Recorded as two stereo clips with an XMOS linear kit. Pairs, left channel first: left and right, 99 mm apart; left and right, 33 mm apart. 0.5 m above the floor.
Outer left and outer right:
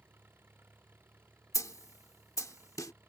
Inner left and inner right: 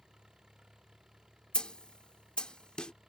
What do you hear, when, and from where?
0.0 s an engine running: 20° right (ahead or behind)
1.5 s a snare drum: 30° left (ahead or behind)